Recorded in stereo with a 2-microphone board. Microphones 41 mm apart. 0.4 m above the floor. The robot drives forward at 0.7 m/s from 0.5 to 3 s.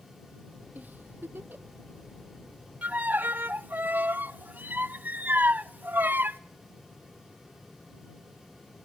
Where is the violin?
45° right (ahead or behind), 0.5 m; by 6.4 s 55° right (ahead or behind), 0.5 m.